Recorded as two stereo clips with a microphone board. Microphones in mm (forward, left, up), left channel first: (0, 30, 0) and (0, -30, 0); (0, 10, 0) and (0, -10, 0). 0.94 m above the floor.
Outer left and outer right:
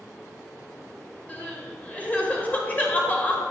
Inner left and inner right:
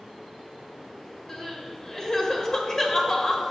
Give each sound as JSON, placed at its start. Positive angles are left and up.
{"t": 1.3, "sound": "crying", "side_deg": 25, "distance_m": 1.5}